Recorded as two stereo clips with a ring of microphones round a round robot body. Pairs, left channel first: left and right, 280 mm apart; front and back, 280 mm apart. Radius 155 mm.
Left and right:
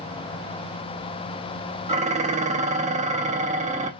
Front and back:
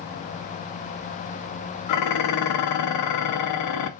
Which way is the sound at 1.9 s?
25° right.